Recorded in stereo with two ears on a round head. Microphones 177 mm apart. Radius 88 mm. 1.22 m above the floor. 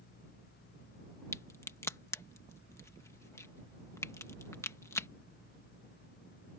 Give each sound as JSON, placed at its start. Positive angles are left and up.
{"t": 1.3, "sound": "a crack", "side_deg": 15}